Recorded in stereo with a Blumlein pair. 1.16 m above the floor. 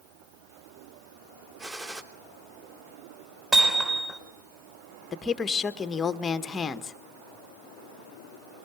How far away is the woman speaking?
About 1.4 m.